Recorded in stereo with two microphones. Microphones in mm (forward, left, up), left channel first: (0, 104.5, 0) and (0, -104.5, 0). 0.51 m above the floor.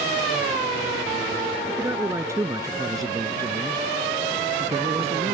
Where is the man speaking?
10° right (ahead or behind); by 5.3 s 30° right (ahead or behind).